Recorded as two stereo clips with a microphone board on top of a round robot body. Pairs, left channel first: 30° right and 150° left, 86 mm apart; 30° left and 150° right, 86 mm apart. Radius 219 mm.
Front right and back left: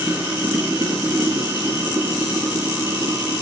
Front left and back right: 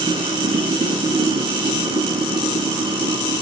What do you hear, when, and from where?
0.0 s running water: 140° right, 4 m